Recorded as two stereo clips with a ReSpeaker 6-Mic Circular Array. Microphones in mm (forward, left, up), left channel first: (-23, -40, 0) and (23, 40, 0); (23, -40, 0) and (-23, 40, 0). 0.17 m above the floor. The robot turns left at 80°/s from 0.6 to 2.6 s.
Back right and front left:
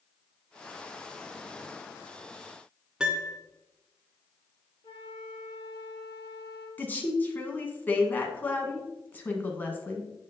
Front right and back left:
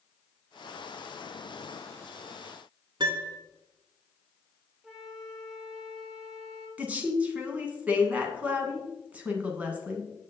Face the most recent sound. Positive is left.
turn(degrees=-175)